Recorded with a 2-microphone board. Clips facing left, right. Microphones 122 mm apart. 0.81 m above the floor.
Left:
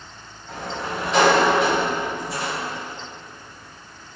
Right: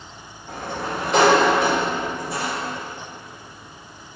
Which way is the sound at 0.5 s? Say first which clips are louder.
Right 1 dB; 50° right (ahead or behind).